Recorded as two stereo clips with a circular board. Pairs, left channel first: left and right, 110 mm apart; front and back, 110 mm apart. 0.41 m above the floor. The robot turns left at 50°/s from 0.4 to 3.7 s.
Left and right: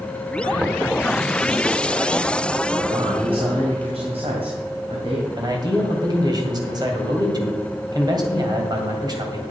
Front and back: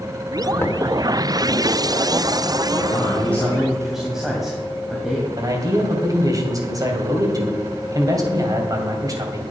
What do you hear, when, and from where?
0.6 s knocking: 25° right, 1.0 m; by 0.9 s 40° right, 1.0 m
2.7 s a man speaking: 45° right, 2 m; by 5.3 s 95° right, 2 m
5.4 s a man speaking: 130° right, 2.5 m